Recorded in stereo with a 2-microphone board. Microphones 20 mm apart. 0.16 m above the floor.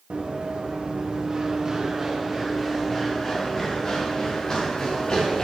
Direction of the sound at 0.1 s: 55° right (ahead or behind).